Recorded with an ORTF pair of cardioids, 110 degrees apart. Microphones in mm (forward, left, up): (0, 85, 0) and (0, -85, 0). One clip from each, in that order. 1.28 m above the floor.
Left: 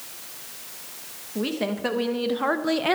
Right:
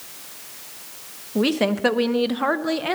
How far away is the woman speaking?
About 1.3 m.